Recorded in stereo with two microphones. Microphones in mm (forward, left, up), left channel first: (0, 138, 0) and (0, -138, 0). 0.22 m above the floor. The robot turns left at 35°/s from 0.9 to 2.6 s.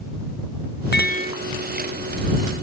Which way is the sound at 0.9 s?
35° left (ahead or behind).